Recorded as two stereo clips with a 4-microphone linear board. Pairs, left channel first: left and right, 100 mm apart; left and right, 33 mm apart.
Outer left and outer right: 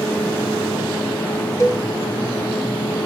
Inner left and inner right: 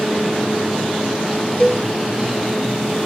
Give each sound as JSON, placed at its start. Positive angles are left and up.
{"t": 1.6, "sound": "a cowbell", "side_deg": 30, "distance_m": 1.3}